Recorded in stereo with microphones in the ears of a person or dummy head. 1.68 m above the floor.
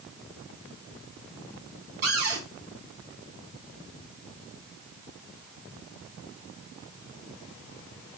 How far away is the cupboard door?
About 5.5 m.